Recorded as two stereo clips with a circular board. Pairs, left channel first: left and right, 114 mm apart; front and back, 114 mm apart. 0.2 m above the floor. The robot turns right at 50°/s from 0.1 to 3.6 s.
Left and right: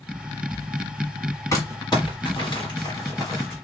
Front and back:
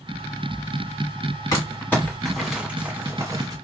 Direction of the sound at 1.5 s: 45° left.